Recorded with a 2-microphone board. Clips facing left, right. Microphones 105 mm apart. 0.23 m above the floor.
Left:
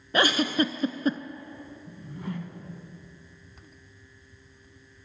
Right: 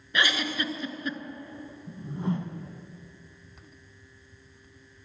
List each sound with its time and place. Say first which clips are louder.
0.1 s a giggle: left 5 dB; 40° left (ahead or behind), 0.6 m
1.9 s a whoosh: right 6 dB; 25° right (ahead or behind), 0.7 m